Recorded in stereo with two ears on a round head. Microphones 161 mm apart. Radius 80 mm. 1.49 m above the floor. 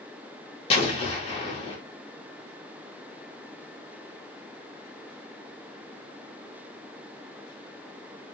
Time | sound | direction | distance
0.7 | an explosion | 30° left (ahead or behind) | 0.8 m